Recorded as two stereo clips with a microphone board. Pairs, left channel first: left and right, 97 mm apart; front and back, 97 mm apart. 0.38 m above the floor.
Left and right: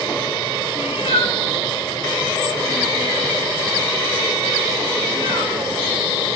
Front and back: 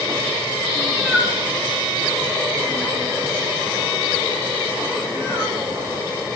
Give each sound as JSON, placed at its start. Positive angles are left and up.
{"t": 0.8, "sound": "a cat meowing", "azimuth_deg": 85, "distance_m": 1.2}